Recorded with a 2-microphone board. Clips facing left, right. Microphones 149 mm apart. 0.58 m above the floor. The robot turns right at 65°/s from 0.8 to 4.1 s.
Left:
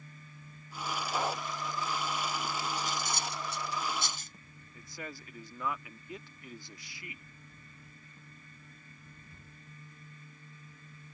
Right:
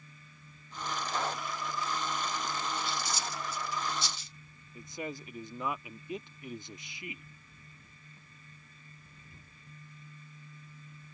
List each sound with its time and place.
1.1 s breathing: 10° left (ahead or behind); by 1.4 s 25° left (ahead or behind)
2.8 s cutlery clinking: 35° left (ahead or behind); by 4.3 s 50° left (ahead or behind)
4.8 s a man speaking: 20° right (ahead or behind)